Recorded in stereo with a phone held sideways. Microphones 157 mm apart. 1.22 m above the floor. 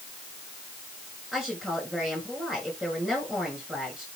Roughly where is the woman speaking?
Centre.